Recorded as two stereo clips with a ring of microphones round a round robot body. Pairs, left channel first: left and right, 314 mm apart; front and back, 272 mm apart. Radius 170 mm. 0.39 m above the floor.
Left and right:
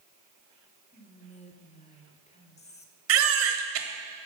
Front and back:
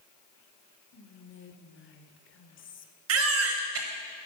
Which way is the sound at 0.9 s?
25° left.